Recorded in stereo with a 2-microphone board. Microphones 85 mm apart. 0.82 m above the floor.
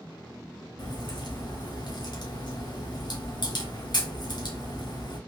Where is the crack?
60° left (ahead or behind), 1.3 m.